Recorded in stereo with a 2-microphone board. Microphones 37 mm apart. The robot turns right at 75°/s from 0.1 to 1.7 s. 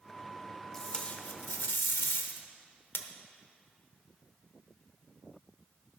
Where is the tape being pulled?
10° left, 0.8 m; by 3.1 s 85° left, 0.8 m.